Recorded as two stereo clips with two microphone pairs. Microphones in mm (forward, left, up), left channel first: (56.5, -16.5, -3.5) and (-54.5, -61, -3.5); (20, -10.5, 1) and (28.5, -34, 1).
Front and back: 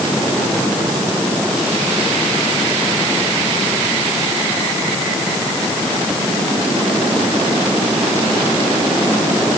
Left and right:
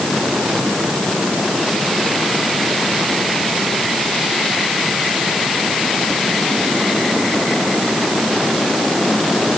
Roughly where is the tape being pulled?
No tape being pulled in this recording.